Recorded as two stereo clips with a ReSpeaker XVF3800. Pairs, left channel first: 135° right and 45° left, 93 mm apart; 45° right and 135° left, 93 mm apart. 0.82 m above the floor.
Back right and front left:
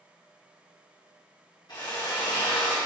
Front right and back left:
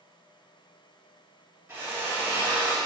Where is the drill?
165° right, 2 m.